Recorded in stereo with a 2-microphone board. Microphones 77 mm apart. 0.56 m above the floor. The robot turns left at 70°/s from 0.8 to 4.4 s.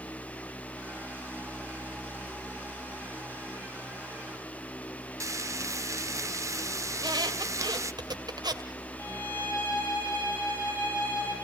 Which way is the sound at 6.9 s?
65° right (ahead or behind).